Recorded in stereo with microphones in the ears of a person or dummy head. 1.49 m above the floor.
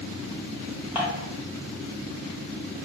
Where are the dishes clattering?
5° right (ahead or behind), 1.5 m.